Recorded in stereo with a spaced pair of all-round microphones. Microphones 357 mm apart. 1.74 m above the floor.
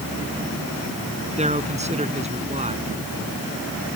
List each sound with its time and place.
1.4 s a man speaking: 20° right (ahead or behind)